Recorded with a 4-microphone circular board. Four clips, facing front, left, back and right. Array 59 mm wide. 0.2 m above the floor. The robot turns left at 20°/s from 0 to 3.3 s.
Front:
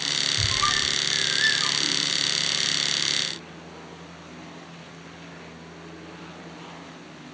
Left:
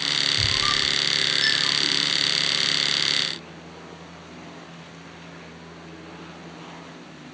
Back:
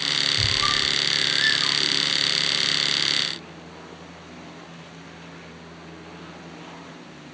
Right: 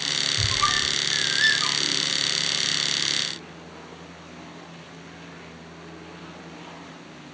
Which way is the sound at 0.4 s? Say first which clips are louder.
Even, back 1 dB; 60° right.